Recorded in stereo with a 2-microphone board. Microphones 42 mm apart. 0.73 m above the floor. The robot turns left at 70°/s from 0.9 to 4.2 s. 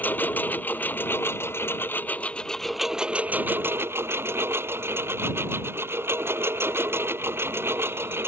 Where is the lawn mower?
130° left; by 8.3 s 100° right.